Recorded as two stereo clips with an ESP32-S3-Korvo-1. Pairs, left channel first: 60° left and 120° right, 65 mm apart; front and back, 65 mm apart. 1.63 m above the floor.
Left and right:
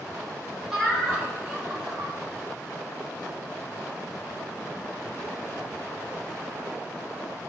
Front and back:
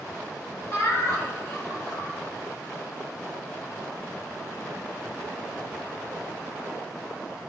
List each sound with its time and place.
0.7 s laughter: 35° right, 1.8 m; by 2.1 s 40° right, 1.2 m